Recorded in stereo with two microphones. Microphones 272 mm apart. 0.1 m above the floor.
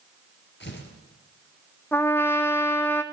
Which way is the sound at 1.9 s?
10° left (ahead or behind).